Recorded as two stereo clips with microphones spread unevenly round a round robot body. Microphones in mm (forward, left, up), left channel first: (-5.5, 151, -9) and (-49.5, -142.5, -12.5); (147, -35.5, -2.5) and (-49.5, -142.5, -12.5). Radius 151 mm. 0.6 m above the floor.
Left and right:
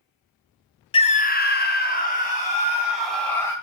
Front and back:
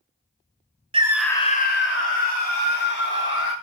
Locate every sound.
0.9 s a scream: 150° left, 0.7 m; by 3.5 s 10° left, 2 m